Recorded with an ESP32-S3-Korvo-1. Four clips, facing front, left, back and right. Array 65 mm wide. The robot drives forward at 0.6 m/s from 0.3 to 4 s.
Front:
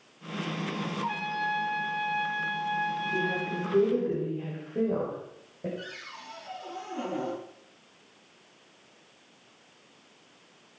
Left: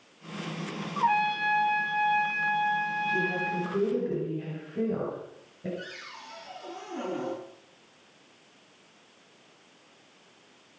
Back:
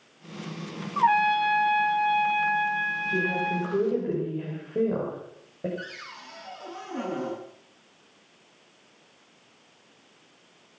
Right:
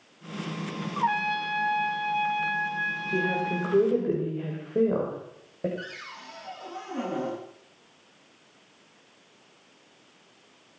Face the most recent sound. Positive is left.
turn(degrees=-135)